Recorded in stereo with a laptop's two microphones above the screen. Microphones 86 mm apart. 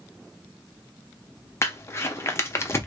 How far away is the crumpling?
About 0.5 m.